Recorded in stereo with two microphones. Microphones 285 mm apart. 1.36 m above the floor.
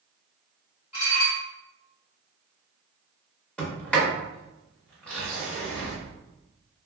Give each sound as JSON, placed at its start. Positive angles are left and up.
{"t": 0.9, "sound": "dishes clattering", "side_deg": 65, "distance_m": 1.7}
{"t": 3.6, "sound": "a sliding door", "side_deg": 5, "distance_m": 1.2}